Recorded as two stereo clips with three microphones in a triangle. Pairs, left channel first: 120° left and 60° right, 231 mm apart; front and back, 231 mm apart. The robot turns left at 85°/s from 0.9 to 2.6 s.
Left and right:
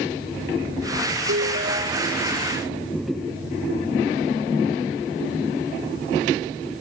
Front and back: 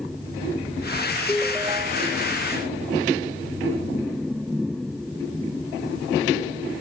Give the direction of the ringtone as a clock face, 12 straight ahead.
3 o'clock.